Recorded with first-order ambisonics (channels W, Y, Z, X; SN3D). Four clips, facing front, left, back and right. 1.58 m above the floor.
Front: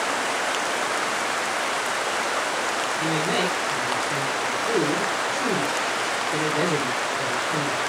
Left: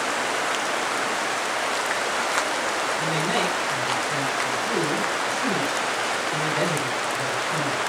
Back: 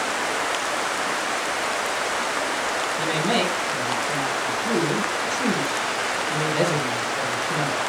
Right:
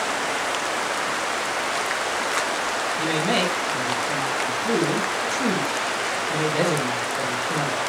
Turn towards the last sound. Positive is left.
turn(degrees=-140)